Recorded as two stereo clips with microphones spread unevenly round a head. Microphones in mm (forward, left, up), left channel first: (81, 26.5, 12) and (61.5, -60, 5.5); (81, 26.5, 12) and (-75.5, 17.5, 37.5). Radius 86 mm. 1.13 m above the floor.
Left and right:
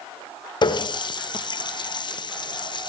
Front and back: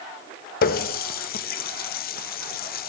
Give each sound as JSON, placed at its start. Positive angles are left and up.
{"t": 0.6, "sound": "a running tap", "azimuth_deg": 40, "distance_m": 0.6}